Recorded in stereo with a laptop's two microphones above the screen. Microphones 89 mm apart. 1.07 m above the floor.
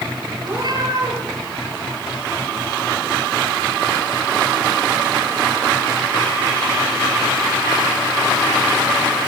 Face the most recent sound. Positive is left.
turn(degrees=-60)  # may be behind; listen again after turning